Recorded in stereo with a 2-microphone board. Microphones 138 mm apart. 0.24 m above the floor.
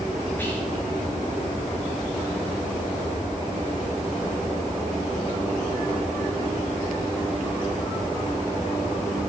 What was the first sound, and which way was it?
Whispering, 15° left (ahead or behind).